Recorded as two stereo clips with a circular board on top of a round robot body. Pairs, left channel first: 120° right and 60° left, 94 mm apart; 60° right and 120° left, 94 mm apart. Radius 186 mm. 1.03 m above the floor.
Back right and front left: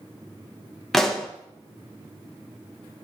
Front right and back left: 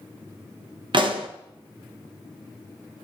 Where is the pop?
155° left, 1.2 m.